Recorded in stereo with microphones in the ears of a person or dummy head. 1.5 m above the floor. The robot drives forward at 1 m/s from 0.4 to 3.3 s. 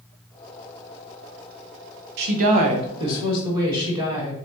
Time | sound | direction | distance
2.2 | a woman speaking | 55° right (ahead or behind) | 0.7 m